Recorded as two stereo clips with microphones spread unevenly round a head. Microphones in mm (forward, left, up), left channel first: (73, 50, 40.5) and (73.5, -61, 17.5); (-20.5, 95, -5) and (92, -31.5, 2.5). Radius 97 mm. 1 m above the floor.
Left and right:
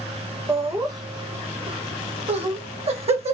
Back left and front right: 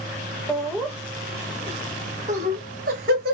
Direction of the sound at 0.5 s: 145° right.